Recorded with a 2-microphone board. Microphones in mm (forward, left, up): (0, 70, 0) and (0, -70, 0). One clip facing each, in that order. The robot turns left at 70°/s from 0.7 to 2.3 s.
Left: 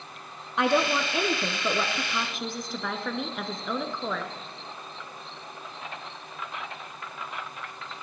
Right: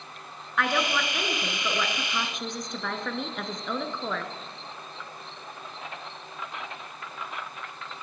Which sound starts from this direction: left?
A woman speaking, at 0.6 s.